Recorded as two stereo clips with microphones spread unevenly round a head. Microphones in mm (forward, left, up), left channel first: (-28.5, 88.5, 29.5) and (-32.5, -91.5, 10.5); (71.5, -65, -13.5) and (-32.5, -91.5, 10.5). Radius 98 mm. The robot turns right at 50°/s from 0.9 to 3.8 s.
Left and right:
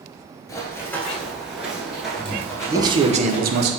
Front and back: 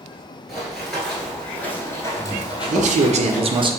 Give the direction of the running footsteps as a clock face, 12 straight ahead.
8 o'clock.